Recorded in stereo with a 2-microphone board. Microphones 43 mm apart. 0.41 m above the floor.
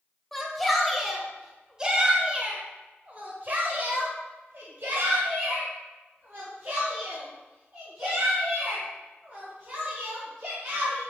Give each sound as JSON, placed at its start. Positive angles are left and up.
{"t": 0.3, "sound": "a shout", "side_deg": 5, "distance_m": 2.0}